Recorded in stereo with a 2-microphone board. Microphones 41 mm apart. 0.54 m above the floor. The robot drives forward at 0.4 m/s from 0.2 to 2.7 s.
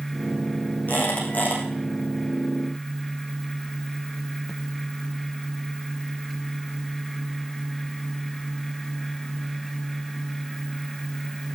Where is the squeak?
45° left (ahead or behind), 4.5 m.